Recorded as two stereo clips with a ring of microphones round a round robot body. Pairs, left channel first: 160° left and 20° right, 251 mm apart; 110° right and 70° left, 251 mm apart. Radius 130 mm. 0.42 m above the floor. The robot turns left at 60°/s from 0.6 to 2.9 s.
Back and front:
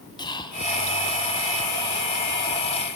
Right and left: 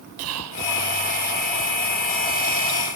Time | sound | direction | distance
0.2 | whispering | 85° left | 3.5 m